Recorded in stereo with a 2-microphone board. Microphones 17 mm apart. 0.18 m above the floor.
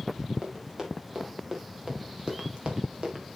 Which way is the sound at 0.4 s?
30° right (ahead or behind).